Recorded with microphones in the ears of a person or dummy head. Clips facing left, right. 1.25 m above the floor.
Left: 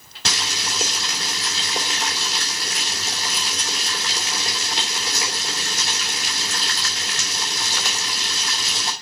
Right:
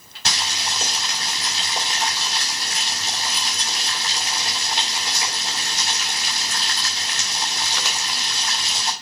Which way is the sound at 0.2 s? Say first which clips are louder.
Even; 70° left (ahead or behind).